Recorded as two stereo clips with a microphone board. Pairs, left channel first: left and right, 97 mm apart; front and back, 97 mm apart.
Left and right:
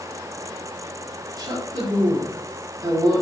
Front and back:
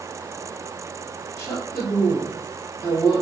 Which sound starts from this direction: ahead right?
A woman speaking, at 1.4 s.